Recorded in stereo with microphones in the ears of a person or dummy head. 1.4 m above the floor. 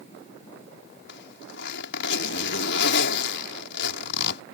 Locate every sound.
1.1 s a zipper: 65° left (ahead or behind)